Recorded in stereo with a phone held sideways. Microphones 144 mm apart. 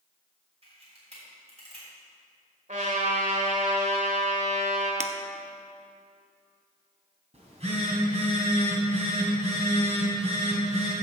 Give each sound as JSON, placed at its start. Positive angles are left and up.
{"t": 0.6, "sound": "a camera shutter", "side_deg": -45, "distance_m": 3.5}
{"t": 2.7, "sound": "a trumpet", "side_deg": -60, "distance_m": 2.0}
{"t": 5.0, "sound": "breaking glass", "side_deg": -55, "distance_m": 0.6}
{"t": 7.3, "sound": "a phone buzzing", "side_deg": -50, "distance_m": 2.5}